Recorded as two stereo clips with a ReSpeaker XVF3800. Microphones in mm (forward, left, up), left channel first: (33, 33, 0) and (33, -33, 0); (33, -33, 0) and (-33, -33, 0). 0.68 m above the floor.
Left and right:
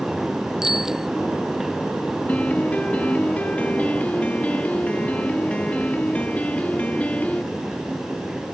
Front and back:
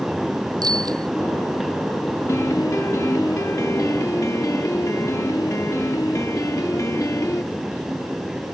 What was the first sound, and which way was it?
A bicycle bell, 170° right.